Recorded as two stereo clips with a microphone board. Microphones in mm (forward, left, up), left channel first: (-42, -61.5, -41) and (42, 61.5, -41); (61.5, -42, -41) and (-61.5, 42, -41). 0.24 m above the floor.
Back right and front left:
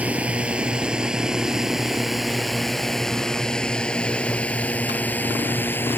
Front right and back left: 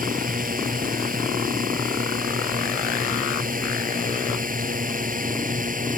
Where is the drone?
135° left; by 6.0 s 160° left.